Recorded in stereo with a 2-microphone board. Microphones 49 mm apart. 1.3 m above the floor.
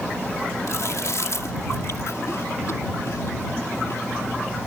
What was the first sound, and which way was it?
Chewing, 75° left (ahead or behind).